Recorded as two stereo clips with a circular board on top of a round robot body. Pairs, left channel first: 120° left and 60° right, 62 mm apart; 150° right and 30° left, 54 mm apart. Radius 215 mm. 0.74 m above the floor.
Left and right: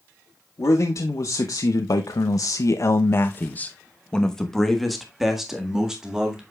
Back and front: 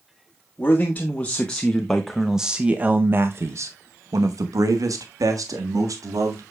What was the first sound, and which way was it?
A man speaking, 150° left.